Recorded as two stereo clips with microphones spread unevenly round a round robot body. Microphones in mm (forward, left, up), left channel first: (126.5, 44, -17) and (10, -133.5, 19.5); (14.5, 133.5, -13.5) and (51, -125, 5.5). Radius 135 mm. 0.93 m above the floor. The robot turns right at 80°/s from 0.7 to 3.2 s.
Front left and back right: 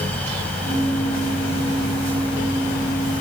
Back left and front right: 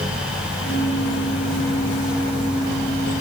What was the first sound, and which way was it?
Only background noise.